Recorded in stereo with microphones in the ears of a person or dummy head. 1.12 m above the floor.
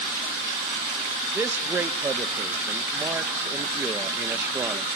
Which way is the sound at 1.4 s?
10° right (ahead or behind).